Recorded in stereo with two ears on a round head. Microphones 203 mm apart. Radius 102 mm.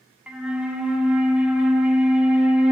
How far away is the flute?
About 0.5 m.